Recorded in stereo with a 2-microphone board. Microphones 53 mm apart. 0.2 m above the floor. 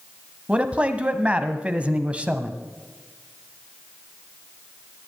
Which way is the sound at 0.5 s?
20° right (ahead or behind).